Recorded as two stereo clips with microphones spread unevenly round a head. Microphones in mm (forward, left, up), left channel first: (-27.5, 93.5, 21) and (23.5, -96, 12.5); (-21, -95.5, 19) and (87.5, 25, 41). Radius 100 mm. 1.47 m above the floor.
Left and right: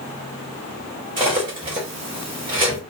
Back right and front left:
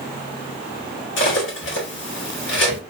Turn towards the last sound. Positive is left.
turn(degrees=-140)